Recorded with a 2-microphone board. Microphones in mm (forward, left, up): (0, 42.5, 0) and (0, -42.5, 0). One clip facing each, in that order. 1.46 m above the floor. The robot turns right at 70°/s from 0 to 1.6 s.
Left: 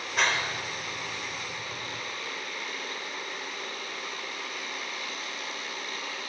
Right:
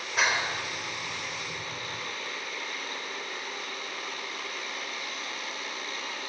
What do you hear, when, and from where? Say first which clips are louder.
0.2 s a clap: even; 5° right (ahead or behind), 4.5 m; by 2.0 s 75° right (ahead or behind), 4.5 m